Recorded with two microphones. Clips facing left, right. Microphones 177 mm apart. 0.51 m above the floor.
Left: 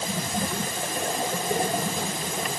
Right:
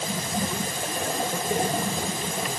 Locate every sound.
Only background noise.